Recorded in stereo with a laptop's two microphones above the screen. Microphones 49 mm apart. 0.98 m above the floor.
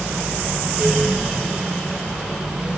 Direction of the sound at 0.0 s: 15° right (ahead or behind).